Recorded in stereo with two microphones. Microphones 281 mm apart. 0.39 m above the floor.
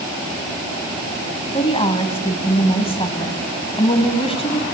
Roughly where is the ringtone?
No ringtone in this recording.